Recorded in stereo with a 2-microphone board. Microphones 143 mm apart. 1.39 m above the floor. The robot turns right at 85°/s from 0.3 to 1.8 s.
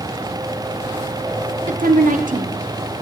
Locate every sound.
1.7 s a woman speaking: 55° right (ahead or behind), 0.6 m; by 3.0 s 70° right (ahead or behind), 0.6 m